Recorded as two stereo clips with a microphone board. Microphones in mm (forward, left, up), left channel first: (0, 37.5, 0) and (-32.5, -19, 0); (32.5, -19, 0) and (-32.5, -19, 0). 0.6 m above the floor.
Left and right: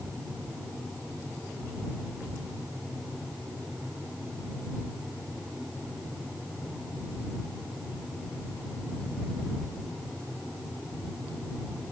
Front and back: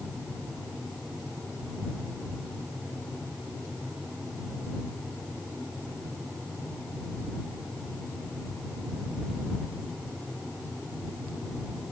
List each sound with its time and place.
Only background noise.